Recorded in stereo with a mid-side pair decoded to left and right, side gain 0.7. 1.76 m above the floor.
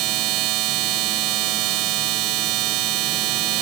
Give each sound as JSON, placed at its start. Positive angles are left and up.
{"t": 0.0, "sound": "a machine running", "azimuth_deg": -65}